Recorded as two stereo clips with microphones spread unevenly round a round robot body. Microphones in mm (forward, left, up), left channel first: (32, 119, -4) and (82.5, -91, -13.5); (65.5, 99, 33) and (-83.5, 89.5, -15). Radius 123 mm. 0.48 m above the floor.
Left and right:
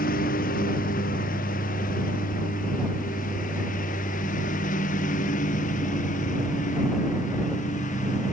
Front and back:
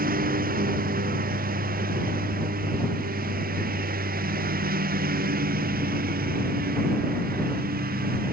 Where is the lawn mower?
165° left.